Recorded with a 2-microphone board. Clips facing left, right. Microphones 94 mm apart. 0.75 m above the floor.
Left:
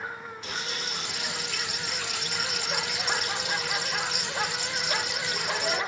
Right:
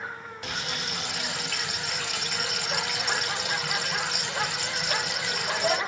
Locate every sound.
0.4 s frying: 70° right (ahead or behind), 1.2 m